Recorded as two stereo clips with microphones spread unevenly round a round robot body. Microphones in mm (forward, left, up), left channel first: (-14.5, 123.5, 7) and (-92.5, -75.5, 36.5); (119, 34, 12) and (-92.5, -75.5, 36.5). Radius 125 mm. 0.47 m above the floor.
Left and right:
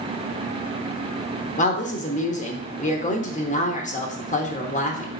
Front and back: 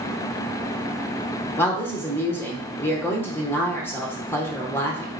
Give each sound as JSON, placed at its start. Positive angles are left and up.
{"t": 1.6, "sound": "a woman speaking", "azimuth_deg": 100, "distance_m": 0.9}